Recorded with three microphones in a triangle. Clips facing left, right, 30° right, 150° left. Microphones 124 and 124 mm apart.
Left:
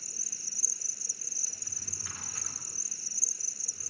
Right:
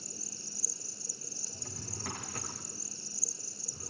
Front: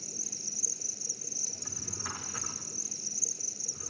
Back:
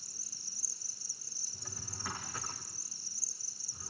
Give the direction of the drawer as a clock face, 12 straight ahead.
4 o'clock.